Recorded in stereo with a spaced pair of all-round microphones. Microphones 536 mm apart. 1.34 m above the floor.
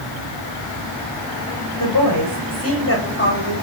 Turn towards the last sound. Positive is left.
turn(degrees=20)  # may be behind; listen again after turning